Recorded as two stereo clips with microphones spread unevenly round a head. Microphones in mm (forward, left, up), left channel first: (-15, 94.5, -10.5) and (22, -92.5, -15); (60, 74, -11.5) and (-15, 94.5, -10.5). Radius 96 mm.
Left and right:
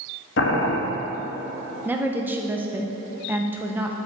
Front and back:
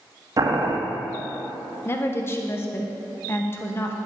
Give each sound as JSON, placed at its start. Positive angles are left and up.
{"t": 0.4, "sound": "boiling", "azimuth_deg": 130, "distance_m": 1.4}
{"t": 1.9, "sound": "a woman speaking", "azimuth_deg": -10, "distance_m": 0.8}